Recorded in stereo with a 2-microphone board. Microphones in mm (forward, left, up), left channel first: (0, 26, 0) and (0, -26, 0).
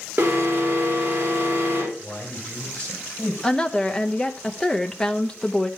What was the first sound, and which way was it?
An alarm, 40° right (ahead or behind).